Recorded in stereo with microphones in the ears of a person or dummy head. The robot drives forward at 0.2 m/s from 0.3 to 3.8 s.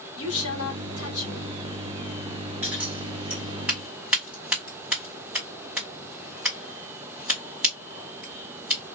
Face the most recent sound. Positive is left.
turn(degrees=-5)  # may be behind; listen again after turning